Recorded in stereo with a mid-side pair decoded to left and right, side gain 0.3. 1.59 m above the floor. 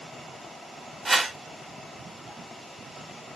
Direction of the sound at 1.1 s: 30° right.